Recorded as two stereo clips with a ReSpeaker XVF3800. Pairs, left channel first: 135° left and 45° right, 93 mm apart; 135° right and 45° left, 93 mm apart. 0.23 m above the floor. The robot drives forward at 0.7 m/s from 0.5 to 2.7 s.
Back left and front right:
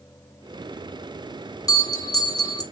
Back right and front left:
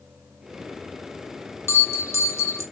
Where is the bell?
170° left, 2.5 m; by 2.6 s 175° left, 3 m.